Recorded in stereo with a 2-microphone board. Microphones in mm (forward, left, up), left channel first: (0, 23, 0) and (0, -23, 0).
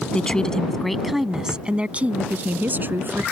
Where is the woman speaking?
25° left (ahead or behind); by 3.2 s 50° right (ahead or behind).